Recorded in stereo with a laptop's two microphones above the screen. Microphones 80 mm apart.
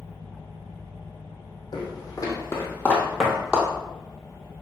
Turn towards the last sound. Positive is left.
turn(degrees=-15)  # may be behind; listen again after turning